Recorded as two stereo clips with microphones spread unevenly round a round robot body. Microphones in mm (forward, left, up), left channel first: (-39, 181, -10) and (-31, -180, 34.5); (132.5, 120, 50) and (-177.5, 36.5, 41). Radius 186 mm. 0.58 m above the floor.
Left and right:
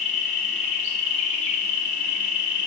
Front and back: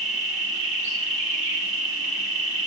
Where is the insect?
155° left, 2.5 m.